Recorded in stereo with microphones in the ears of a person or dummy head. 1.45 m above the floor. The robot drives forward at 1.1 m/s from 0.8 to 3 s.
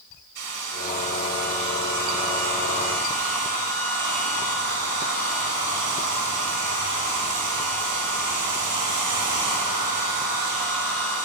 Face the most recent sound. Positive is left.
turn(degrees=-60)  # may be behind; listen again after turning